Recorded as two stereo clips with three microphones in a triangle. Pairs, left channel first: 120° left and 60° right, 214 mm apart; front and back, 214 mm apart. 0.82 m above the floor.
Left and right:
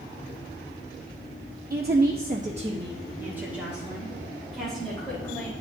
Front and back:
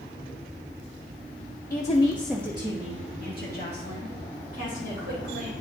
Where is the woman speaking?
30° right, 0.9 m; by 5.5 s 155° right, 4 m.